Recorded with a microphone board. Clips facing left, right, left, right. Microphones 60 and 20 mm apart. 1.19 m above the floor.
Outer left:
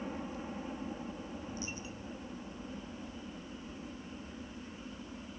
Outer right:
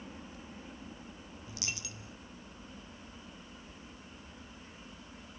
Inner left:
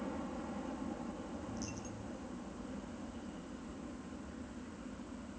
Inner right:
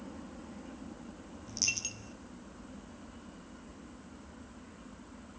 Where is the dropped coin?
85° right.